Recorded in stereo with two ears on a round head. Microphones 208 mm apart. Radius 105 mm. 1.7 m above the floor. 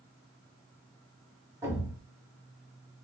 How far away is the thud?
About 1.7 m.